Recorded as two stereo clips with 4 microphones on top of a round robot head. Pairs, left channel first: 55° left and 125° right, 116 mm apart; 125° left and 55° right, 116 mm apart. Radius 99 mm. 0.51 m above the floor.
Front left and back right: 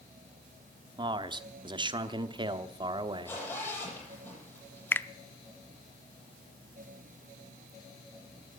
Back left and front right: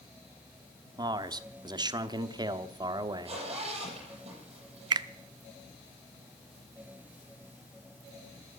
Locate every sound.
1.0 s a man speaking: 95° right, 1.1 m
3.2 s a zipper: 20° right, 8.5 m
4.9 s a finger snap: 15° right, 0.6 m